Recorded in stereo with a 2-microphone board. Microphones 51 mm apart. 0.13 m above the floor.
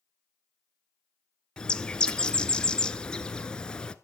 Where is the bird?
20° left (ahead or behind), 0.9 m.